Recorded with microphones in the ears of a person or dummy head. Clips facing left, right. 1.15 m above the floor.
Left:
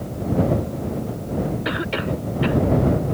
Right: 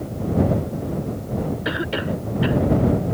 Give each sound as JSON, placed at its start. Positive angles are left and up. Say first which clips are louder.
{"t": 1.6, "sound": "a cough", "louder": "even", "side_deg": 0}